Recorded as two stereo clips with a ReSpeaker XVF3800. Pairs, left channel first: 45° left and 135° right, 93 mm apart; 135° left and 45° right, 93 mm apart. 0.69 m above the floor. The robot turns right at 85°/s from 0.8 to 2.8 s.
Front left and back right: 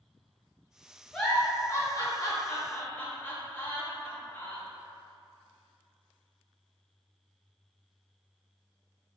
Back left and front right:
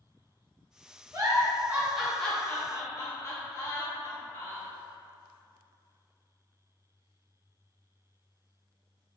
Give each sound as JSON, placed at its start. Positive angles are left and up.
{"t": 1.1, "sound": "a giggle", "azimuth_deg": -40, "distance_m": 0.9}